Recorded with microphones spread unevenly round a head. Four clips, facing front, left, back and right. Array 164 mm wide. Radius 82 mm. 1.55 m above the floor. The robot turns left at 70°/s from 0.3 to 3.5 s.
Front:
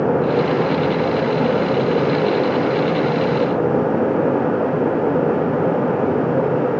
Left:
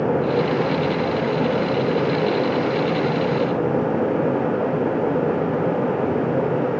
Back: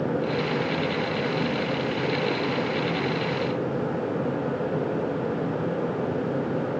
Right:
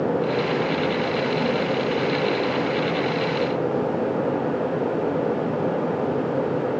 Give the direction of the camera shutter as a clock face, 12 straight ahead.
No camera shutter in this recording.